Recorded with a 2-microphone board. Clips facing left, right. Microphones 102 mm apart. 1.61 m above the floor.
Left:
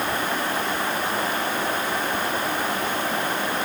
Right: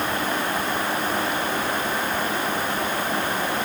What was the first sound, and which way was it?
Only background noise.